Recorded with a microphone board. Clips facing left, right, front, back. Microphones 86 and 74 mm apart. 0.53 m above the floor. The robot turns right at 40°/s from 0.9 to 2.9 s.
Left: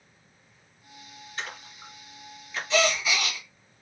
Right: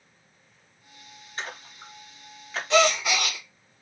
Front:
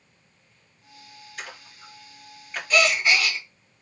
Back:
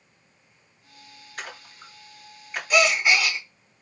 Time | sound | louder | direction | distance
1.4 | a splash | right 1 dB, back 2 dB | 145° right | 1.0 m
2.7 | a gasp | right 4 dB, back 1 dB | 105° right | 0.7 m